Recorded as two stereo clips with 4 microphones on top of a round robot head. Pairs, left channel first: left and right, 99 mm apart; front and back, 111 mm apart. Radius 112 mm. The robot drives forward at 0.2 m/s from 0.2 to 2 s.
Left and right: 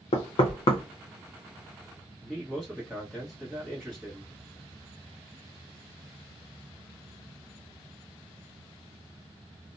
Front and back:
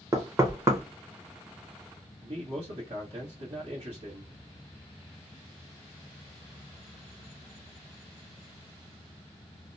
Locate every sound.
0.1 s knocking: 115° left, 0.8 m; by 0.8 s 120° left, 0.9 m
2.2 s a man speaking: 175° left, 1.3 m